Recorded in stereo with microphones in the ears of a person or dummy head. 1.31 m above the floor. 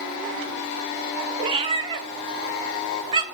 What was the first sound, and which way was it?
A cat meowing, 25° right (ahead or behind).